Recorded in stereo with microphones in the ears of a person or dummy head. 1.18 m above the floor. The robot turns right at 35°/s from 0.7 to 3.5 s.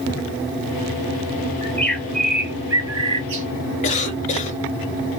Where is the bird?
170° left, 0.8 m; by 3.5 s 125° right, 0.8 m.